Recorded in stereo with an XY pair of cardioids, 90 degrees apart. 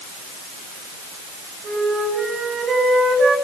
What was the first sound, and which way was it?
A flute, 55° right.